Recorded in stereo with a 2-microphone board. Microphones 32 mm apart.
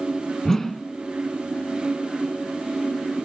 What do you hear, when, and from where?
0.5 s a whoosh: 10° left (ahead or behind), 0.5 m